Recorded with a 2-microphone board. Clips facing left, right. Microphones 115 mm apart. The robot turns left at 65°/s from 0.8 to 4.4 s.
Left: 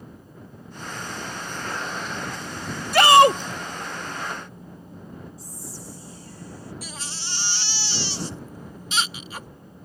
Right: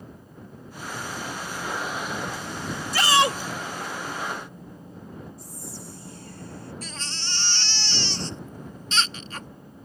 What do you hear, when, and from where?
2.9 s a shout: 80° left; by 3.4 s 50° left
5.4 s whispering: 60° right (ahead or behind)
6.8 s a baby crying: 10° left (ahead or behind)